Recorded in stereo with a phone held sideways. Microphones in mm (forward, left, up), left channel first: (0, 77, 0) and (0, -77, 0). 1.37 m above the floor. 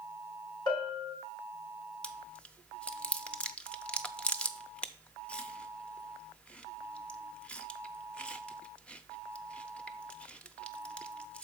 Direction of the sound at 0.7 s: 30° left (ahead or behind).